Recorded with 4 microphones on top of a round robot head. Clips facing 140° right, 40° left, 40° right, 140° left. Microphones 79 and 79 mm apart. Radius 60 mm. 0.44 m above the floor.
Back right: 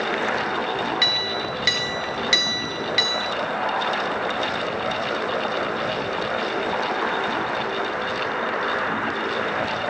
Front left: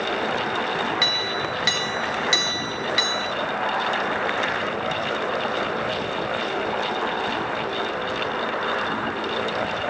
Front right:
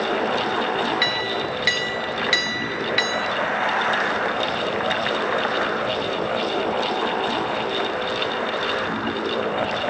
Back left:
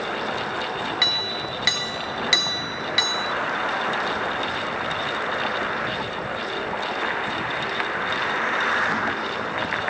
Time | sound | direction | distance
1.0 | a clink | 80° left | 1.0 m